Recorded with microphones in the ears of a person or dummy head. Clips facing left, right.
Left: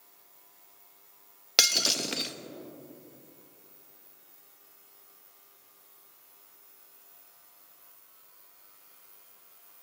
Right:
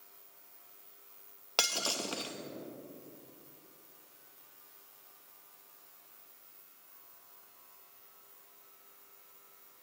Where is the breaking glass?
25° left (ahead or behind), 0.7 m.